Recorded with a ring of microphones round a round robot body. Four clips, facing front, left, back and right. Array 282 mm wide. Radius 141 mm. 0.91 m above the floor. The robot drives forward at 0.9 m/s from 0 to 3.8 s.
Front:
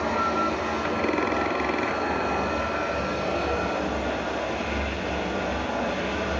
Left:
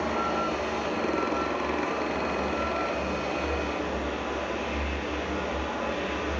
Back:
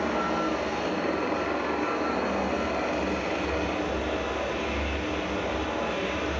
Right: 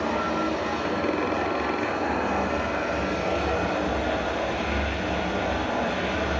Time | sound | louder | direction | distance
0.0 | running water | right 2 dB, front 2 dB | 40° right | 6 m